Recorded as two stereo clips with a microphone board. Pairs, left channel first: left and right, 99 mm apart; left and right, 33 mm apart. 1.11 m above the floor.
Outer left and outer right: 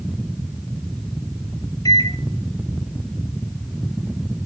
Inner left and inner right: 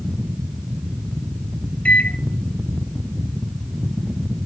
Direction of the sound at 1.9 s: 40° left (ahead or behind).